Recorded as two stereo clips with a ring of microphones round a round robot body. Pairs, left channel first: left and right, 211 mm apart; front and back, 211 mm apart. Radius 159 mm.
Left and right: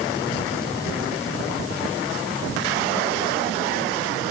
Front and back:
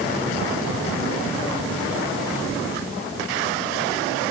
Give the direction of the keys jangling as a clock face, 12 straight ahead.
No keys jangling in this recording.